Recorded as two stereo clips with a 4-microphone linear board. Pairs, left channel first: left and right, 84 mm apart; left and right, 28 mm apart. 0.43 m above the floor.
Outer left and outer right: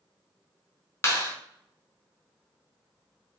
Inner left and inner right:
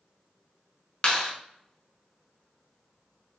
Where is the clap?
30° left (ahead or behind), 0.6 m.